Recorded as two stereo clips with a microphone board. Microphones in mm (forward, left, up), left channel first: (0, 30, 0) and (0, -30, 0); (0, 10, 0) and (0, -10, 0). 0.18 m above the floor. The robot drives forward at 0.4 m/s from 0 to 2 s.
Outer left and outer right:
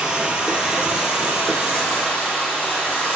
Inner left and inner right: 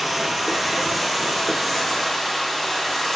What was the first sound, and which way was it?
Running water, 15° right (ahead or behind).